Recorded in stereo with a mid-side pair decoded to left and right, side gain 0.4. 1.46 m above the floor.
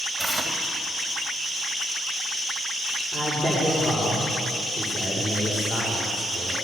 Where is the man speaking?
5° left, 6 m.